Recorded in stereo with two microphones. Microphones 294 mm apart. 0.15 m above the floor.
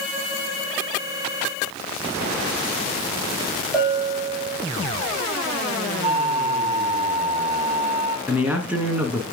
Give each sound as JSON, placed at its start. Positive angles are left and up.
{"t": 3.7, "sound": "a bell", "side_deg": 5, "distance_m": 4.5}
{"t": 6.0, "sound": "a flute", "side_deg": -25, "distance_m": 0.7}
{"t": 8.3, "sound": "a man speaking", "side_deg": -5, "distance_m": 1.5}